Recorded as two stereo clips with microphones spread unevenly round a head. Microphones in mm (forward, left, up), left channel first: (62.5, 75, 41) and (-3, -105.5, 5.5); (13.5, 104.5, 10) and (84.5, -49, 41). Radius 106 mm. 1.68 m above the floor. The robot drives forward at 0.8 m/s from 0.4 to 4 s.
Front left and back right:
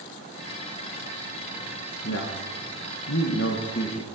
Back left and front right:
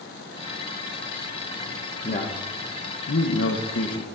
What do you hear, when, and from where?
2.0 s a man speaking: 65° left, 1.7 m; by 4.0 s 120° left, 1.7 m